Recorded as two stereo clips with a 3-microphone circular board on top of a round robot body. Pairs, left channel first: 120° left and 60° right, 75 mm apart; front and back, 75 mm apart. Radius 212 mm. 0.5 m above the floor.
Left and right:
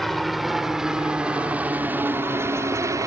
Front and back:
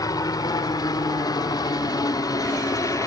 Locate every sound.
0.0 s a helicopter: 30° left; by 3.1 s 30° right